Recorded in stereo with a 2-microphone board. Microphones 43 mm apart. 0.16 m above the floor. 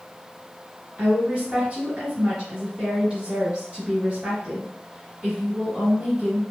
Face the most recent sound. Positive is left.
turn(degrees=-20)  # may be behind; listen again after turning